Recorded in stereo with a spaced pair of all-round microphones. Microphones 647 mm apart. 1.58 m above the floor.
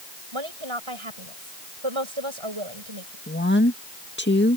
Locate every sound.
0.3 s a woman speaking: 45° right (ahead or behind)
3.3 s a woman speaking: 15° left (ahead or behind)